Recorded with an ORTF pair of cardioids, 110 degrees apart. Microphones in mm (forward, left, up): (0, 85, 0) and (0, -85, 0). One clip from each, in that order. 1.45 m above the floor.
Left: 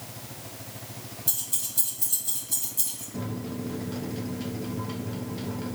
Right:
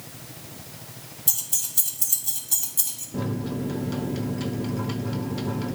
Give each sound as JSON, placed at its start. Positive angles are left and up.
{"t": 1.3, "sound": "keys jangling", "azimuth_deg": -30, "distance_m": 2.5}
{"t": 3.1, "sound": "a microwave", "azimuth_deg": -35, "distance_m": 1.0}